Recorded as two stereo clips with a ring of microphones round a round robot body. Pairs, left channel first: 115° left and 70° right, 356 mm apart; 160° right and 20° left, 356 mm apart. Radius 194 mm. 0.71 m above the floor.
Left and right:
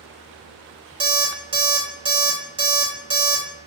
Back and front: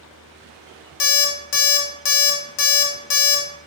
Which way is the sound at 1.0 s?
145° right.